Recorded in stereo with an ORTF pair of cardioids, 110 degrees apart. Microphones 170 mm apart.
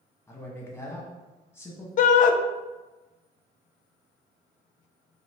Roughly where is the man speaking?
Ahead.